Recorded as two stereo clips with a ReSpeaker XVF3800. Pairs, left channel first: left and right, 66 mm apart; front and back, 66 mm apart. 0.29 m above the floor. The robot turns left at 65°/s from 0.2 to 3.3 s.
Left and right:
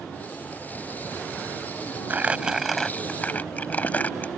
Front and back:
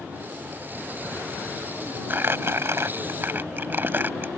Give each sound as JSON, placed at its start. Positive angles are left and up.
{"t": 2.1, "sound": "crumpling", "azimuth_deg": -140}